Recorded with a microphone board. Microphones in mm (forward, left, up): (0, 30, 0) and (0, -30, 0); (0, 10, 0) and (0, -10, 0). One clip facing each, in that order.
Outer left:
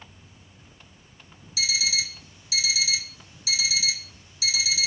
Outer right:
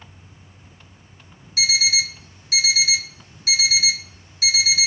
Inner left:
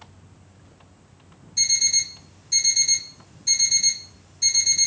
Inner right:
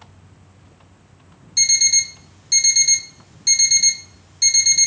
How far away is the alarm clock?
About 1.0 m.